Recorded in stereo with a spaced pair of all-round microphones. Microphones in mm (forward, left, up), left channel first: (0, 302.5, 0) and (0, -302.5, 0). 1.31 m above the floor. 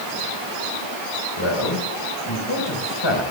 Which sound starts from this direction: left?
A man speaking, at 1.4 s.